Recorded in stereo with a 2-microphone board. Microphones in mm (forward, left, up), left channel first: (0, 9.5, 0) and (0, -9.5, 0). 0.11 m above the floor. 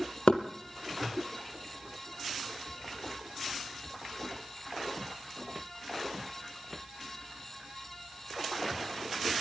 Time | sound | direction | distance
0.3 | knocking | 65° left (ahead or behind) | 2 m